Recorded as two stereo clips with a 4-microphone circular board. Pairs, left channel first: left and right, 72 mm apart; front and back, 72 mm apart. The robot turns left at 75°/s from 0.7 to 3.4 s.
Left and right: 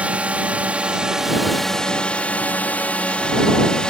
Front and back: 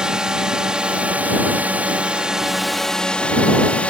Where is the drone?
120° right; by 3.9 s 35° left.